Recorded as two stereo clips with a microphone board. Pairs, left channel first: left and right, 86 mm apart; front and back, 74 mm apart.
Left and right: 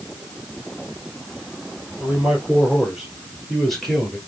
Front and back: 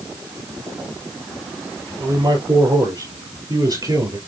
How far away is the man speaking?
About 3 m.